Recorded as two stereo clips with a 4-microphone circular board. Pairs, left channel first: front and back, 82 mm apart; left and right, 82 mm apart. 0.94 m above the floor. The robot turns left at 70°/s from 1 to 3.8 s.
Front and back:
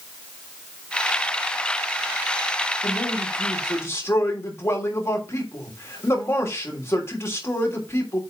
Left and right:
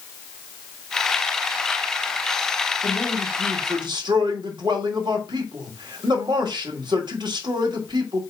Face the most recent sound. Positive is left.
turn(degrees=-60)